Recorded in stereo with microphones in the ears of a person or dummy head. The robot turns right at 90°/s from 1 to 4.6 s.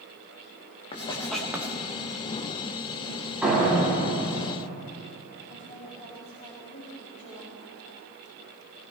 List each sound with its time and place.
0.9 s writing: 30° left (ahead or behind), 1.5 m; by 1.8 s 40° right (ahead or behind), 1.5 m
3.4 s a door slam: straight ahead, 6 m; by 4.8 s 105° left, 6 m
5.5 s a woman speaking: 40° left (ahead or behind), 3 m